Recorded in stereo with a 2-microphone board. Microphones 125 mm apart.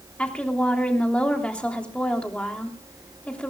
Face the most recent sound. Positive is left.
turn(degrees=10)  # may be behind; listen again after turning